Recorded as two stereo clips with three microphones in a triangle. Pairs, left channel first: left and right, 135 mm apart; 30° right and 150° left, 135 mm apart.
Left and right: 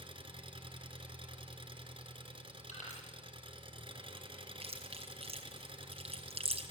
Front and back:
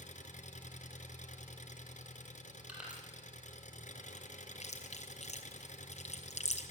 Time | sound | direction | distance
0.0 | an engine running | 40° right | 3.5 m
2.7 | crushing | 70° left | 8.5 m
4.6 | chewing | 55° right | 3.5 m